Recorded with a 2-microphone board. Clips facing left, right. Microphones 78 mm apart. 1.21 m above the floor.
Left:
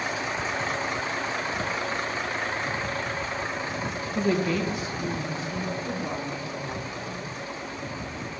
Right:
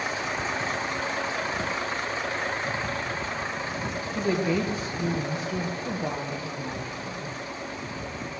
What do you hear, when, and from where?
4.2 s a woman speaking: 5° left (ahead or behind), 0.8 m; by 7.4 s 80° right, 2.5 m